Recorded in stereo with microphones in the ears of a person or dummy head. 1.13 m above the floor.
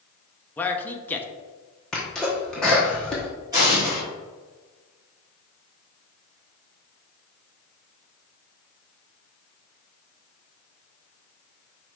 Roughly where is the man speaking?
Centre.